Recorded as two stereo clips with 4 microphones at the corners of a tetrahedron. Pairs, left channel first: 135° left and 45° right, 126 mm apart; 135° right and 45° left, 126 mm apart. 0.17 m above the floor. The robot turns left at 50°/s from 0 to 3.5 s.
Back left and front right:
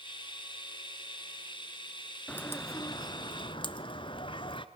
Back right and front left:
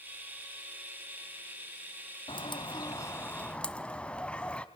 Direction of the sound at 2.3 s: 150° right.